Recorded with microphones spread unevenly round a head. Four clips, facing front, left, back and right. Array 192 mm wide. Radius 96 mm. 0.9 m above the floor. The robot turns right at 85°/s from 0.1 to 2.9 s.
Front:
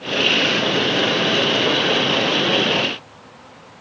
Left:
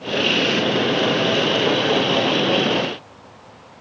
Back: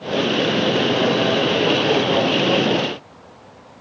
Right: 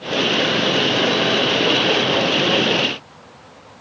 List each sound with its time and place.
Only background noise.